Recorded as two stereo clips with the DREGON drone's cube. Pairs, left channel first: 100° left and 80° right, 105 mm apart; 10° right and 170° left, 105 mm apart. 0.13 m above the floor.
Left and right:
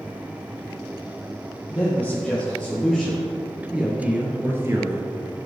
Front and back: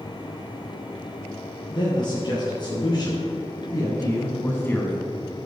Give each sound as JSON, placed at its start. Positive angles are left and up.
{"t": 1.7, "sound": "a man speaking", "azimuth_deg": 25, "distance_m": 3.0}